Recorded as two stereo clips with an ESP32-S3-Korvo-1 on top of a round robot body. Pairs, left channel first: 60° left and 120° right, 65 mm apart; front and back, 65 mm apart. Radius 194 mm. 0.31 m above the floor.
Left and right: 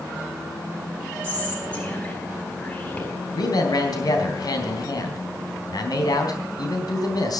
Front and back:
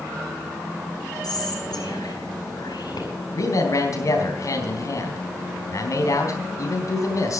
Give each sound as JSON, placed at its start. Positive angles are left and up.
{"t": 1.2, "sound": "whispering", "azimuth_deg": 0, "distance_m": 4.5}
{"t": 3.3, "sound": "a man speaking", "azimuth_deg": 35, "distance_m": 3.5}